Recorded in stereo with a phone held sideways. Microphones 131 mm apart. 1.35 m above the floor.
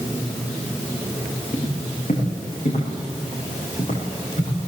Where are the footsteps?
60° left (ahead or behind), 8.5 m; by 4.6 s 50° left (ahead or behind), 8.5 m.